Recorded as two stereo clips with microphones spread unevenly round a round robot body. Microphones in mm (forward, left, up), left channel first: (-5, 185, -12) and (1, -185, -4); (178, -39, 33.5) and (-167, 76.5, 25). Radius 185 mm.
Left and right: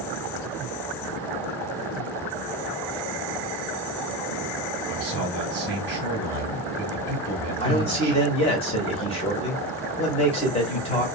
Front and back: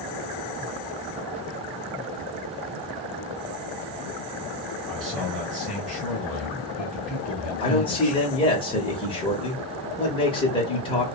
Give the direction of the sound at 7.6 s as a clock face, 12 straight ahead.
11 o'clock.